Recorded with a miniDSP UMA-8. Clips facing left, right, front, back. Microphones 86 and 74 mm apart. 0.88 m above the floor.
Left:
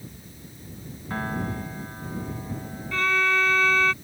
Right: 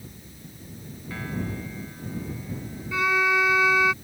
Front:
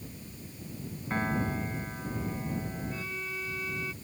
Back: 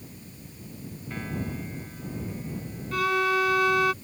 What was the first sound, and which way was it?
A piano, 45° left.